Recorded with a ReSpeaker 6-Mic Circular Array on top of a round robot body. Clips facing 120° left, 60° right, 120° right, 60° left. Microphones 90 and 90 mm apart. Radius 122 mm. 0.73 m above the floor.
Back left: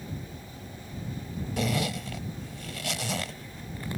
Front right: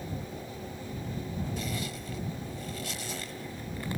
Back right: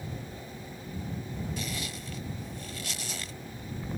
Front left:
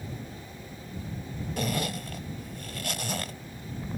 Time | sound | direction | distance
1.6 | a zipper | 100° left | ?